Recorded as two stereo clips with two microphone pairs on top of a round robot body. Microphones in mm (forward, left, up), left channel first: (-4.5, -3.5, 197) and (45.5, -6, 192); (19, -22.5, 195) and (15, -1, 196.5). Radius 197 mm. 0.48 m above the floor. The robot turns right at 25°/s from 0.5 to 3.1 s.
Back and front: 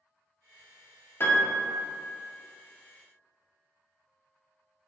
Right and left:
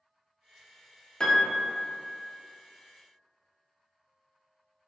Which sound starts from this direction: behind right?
A piano, at 1.2 s.